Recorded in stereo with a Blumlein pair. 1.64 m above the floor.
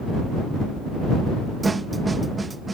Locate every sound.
1.6 s a snare drum: 10° right